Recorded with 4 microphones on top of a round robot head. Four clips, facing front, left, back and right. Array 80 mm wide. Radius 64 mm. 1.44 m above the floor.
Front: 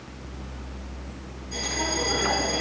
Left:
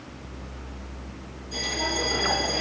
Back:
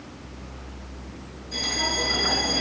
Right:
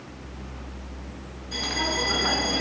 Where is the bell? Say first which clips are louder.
Right 1 dB, even; 85° right, 3.5 m.